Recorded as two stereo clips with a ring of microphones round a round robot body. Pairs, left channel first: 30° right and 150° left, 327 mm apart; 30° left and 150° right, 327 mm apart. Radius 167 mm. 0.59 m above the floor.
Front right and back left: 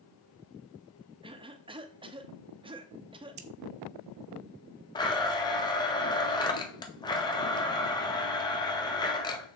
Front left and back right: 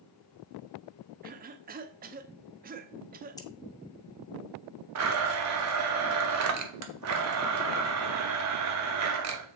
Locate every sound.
1.2 s a cough: 155° right, 0.7 m
3.4 s scissors: 110° left, 1.1 m
5.0 s a blender: 110° right, 1.4 m